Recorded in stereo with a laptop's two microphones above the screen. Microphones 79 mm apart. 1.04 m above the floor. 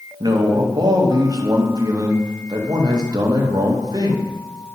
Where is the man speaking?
55° right (ahead or behind), 0.7 m.